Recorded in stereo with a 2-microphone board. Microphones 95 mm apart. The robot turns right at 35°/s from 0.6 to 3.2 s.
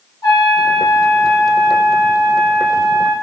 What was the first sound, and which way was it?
A trumpet, 140° left.